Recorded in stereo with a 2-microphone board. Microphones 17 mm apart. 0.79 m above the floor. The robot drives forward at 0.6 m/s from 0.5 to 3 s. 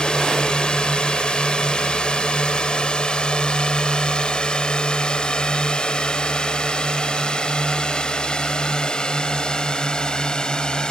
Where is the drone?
70° left (ahead or behind); by 10.9 s 50° left (ahead or behind).